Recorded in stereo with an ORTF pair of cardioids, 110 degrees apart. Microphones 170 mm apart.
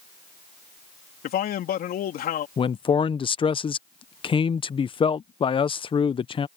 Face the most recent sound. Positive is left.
turn(degrees=30)